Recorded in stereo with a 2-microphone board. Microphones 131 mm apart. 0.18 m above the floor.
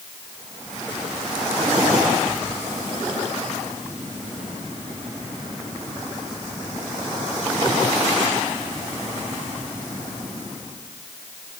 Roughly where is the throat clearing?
No throat clearing in this recording.